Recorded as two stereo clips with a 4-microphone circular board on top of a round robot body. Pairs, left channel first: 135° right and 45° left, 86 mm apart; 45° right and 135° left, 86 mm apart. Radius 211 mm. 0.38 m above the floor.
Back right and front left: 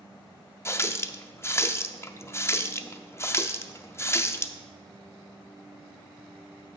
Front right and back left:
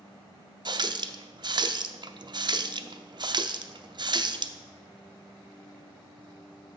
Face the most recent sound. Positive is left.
turn(degrees=165)